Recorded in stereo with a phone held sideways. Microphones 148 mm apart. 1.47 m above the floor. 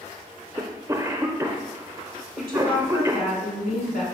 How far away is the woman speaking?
About 4 m.